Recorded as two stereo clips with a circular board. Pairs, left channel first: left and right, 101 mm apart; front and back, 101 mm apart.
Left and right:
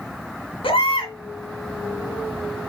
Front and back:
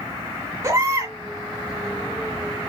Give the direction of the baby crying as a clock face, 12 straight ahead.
8 o'clock.